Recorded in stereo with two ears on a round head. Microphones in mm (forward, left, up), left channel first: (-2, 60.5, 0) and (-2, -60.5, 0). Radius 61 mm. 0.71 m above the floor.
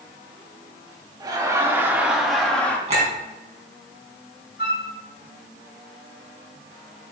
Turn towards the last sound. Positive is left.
turn(degrees=80)